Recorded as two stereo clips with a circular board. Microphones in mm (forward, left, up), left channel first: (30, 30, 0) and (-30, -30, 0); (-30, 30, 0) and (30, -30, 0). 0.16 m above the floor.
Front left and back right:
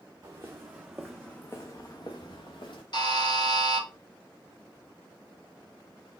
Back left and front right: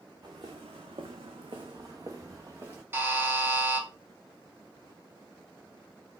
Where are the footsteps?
80° right, 0.8 m; by 2.8 s 20° left, 1.1 m.